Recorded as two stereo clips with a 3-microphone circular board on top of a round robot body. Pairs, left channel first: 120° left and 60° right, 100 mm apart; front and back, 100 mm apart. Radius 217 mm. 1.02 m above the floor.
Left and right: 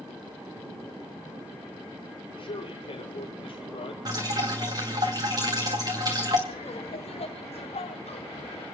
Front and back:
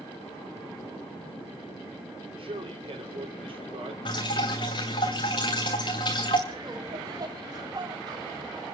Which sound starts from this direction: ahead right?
Dripping, at 4.0 s.